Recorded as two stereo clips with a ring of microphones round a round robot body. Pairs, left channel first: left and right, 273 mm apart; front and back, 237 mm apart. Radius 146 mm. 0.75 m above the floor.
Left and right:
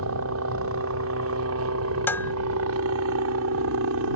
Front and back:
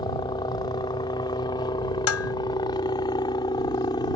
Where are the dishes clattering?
5° left.